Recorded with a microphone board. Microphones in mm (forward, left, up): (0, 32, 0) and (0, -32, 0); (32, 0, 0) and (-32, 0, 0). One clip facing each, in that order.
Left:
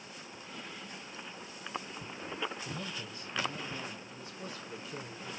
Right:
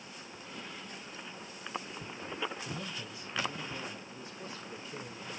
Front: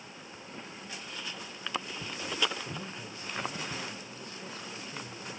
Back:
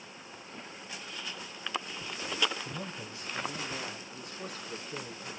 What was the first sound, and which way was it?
A man speaking, straight behind.